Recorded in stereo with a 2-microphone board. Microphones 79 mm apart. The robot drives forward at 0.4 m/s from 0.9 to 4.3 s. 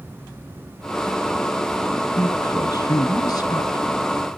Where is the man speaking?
55° left (ahead or behind), 2 m.